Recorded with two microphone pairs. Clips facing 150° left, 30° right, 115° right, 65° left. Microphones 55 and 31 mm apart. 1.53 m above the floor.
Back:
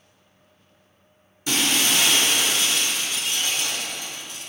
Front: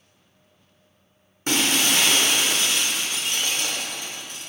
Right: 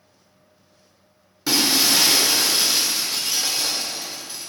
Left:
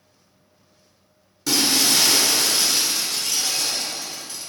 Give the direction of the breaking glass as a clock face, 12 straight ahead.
2 o'clock.